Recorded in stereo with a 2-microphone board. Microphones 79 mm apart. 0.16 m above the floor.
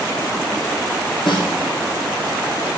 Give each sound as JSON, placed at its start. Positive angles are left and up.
{"t": 1.3, "sound": "a snare drum", "side_deg": 80, "distance_m": 2.0}